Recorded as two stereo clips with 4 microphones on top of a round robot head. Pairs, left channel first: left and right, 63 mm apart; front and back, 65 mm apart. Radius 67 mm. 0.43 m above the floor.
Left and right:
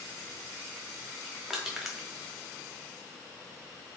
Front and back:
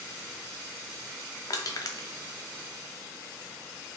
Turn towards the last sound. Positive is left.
turn(degrees=-10)